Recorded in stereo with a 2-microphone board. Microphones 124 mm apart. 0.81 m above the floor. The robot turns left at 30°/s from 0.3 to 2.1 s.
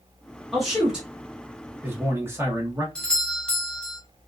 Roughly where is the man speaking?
Centre.